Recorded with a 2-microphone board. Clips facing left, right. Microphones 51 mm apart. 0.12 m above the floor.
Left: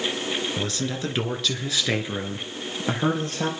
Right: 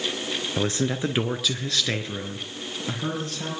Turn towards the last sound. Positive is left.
turn(degrees=45)  # may be behind; listen again after turning